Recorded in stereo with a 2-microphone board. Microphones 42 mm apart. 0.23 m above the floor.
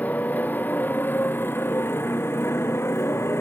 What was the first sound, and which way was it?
A motorcycle, 40° left (ahead or behind).